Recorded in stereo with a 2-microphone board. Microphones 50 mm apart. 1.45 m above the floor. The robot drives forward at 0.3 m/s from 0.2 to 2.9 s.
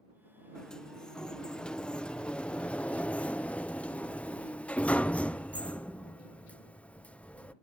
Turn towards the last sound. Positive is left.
turn(degrees=25)  # may be behind; listen again after turning